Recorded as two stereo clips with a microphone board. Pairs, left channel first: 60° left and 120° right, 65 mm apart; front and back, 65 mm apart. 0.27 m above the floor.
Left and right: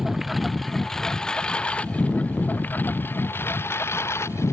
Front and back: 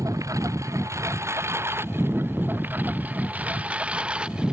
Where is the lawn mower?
155° left; by 4.5 s 105° left.